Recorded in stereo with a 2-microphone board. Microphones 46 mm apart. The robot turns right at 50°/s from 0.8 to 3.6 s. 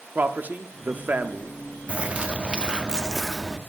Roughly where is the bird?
Right.